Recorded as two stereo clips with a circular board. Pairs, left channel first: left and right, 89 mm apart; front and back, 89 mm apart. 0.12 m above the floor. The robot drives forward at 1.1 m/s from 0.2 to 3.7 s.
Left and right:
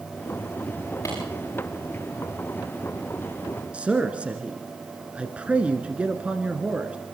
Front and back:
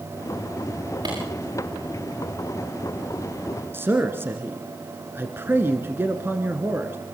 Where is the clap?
145° left, 9 m.